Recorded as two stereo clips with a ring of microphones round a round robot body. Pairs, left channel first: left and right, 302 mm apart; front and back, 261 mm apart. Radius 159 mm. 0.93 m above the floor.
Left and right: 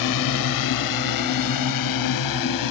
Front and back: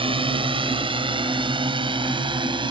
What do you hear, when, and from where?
0.0 s a drone: 110° left